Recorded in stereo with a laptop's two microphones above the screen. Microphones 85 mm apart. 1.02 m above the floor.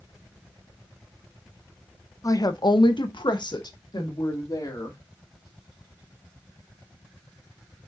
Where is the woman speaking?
40° left (ahead or behind), 0.8 m; by 5.0 s 45° left (ahead or behind), 2.5 m.